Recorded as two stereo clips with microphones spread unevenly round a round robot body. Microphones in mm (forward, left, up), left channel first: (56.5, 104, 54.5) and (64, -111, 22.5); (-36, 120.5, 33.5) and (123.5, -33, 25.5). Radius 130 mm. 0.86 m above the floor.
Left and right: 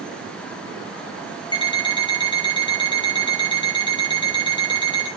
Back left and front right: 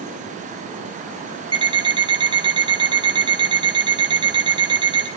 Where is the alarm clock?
25° left, 5 m.